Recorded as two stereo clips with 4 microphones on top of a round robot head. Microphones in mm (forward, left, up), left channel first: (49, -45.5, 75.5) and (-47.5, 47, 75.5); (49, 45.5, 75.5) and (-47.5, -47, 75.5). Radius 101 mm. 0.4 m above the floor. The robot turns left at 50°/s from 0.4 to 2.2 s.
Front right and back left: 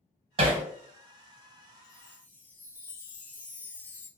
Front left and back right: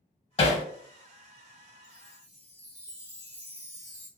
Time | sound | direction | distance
0.4 | hammering | 90° left | 0.8 m
1.8 | a chime | 100° right | 1.3 m